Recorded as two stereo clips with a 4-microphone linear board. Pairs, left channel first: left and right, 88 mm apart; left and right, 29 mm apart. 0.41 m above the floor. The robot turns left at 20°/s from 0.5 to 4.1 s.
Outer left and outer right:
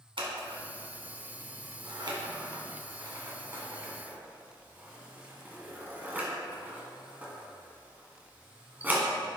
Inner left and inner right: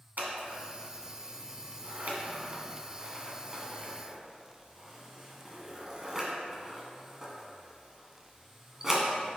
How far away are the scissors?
About 1.9 m.